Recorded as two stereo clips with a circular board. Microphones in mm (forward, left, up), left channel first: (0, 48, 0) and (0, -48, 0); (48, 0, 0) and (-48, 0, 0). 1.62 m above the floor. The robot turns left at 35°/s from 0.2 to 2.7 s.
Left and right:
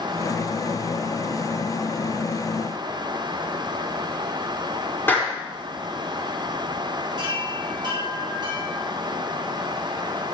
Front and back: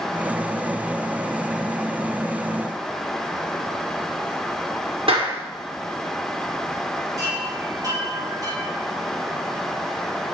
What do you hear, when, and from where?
5.1 s a clap: 160° left, 4.5 m
7.2 s a chime: 130° right, 6 m